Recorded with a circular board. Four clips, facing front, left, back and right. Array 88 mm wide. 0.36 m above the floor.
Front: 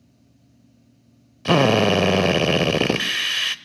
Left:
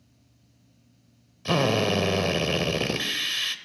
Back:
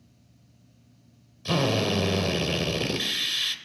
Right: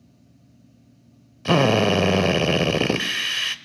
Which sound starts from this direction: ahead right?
A drill, at 1.4 s.